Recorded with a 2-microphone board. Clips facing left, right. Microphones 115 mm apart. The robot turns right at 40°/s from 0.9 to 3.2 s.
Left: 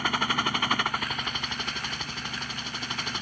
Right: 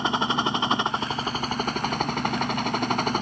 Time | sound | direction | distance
0.0 | a helicopter | 155° right | ?